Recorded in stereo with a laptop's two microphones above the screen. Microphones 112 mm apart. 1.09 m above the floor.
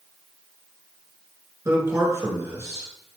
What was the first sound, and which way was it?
A man speaking, 25° right (ahead or behind).